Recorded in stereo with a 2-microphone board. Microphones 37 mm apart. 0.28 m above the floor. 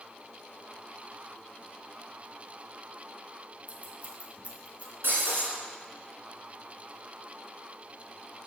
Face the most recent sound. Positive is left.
turn(degrees=-70)  # may be behind; listen again after turning